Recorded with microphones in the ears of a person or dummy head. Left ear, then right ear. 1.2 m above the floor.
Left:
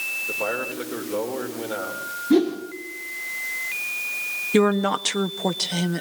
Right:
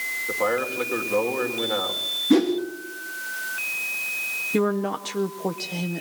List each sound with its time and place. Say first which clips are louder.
0.3 s a man speaking: right 2 dB; 25° right (ahead or behind), 3 m
2.3 s a whoosh: left 1 dB; 30° right (ahead or behind), 3 m
4.5 s a woman speaking: left 7 dB; 40° left (ahead or behind), 0.6 m